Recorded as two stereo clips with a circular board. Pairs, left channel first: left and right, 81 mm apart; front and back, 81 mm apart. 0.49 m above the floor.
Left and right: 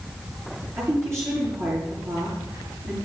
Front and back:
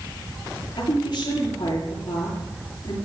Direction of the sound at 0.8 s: 35° right.